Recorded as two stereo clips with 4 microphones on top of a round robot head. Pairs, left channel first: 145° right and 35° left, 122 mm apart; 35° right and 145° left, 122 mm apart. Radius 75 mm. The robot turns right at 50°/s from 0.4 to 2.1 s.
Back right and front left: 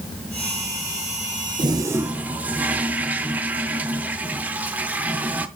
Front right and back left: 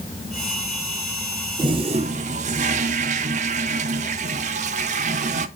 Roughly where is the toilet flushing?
Left.